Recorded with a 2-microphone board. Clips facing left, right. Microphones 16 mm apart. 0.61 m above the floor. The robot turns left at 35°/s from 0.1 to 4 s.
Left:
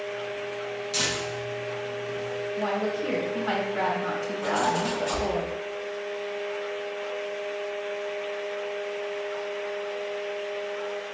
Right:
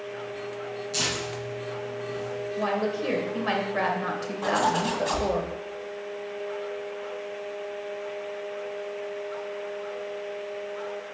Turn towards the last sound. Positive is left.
turn(degrees=-50)  # may be behind; listen again after turning